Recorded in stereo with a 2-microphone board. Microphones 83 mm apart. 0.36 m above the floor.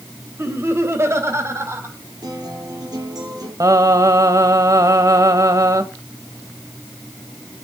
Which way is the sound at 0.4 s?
30° right (ahead or behind).